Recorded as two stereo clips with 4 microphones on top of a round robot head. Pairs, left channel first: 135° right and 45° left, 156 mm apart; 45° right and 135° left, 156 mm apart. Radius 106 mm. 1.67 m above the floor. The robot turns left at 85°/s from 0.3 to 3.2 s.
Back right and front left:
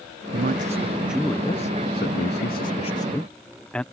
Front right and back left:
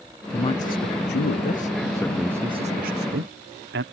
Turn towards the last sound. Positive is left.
turn(degrees=140)